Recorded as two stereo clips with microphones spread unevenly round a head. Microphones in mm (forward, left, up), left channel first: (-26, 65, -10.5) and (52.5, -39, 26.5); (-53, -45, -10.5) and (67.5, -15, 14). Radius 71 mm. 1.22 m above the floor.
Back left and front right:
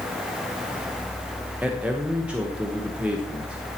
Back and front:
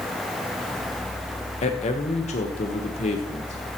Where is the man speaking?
140° right, 1.1 m.